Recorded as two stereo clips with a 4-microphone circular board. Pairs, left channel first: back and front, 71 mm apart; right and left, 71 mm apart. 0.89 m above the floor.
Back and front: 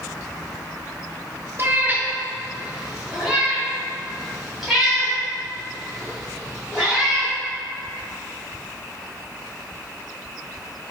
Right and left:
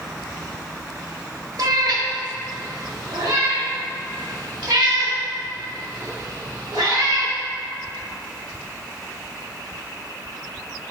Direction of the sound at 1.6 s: 55° left.